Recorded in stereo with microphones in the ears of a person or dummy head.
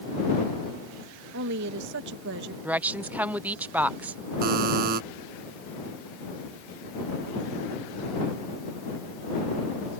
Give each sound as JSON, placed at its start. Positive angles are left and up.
{"t": 1.3, "sound": "a woman speaking", "side_deg": -70}
{"t": 2.6, "sound": "a woman speaking", "side_deg": -10}
{"t": 4.4, "sound": "a buzzer", "side_deg": -50}